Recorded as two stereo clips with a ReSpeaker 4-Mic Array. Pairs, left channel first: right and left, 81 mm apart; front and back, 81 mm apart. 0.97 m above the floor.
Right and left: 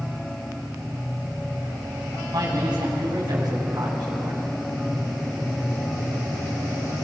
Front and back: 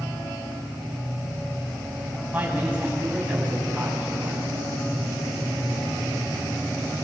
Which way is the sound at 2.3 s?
110° left.